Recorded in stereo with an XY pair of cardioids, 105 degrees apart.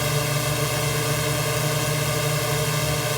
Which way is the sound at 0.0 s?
Straight ahead.